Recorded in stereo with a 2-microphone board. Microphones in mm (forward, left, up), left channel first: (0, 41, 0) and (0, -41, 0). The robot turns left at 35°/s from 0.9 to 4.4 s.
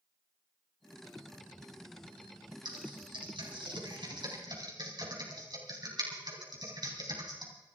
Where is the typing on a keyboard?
65° right (ahead or behind), 3.5 m; by 7.5 s 55° right (ahead or behind), 3.5 m.